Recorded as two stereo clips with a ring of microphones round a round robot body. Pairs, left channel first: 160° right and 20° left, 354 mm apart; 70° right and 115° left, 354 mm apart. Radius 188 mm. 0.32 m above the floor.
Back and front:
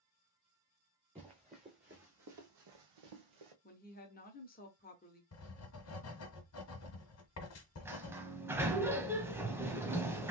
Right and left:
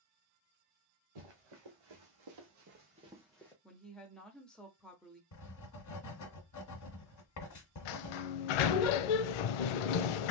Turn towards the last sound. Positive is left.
turn(degrees=-60)